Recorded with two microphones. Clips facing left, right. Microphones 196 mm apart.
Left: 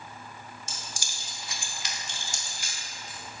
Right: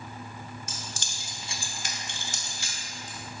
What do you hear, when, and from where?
0.7 s keys jangling: 30° left (ahead or behind), 0.9 m; by 3.4 s 80° right, 2 m